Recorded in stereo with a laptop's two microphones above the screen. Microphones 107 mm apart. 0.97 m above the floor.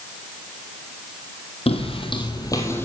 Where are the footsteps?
60° left (ahead or behind), 1.9 m; by 2.9 s 20° left (ahead or behind), 1.7 m.